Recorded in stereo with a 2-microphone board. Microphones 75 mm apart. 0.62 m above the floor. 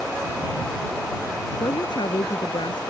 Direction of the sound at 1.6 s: 75° left (ahead or behind).